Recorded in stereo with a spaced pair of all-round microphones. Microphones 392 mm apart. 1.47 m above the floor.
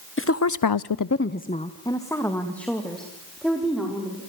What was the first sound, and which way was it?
A woman speaking, 30° left (ahead or behind).